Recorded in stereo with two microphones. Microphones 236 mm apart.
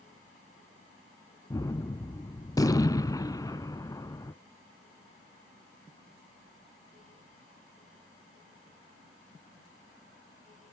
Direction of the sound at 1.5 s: 15° left (ahead or behind).